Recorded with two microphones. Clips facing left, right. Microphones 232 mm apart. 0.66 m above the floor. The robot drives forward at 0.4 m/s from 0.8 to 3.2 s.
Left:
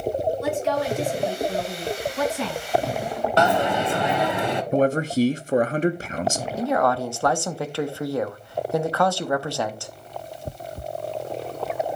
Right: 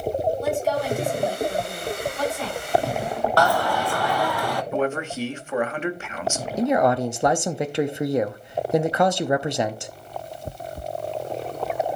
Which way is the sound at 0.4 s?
80° left.